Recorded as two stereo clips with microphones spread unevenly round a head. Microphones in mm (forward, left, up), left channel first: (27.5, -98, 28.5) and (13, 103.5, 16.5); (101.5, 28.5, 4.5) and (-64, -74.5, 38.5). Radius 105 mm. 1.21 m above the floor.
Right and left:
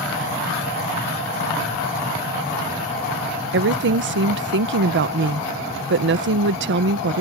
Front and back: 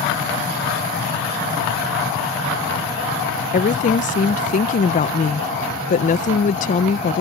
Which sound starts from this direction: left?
A woman speaking, at 3.5 s.